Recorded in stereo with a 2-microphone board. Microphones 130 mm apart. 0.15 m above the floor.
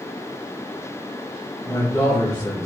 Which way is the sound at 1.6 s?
25° left (ahead or behind).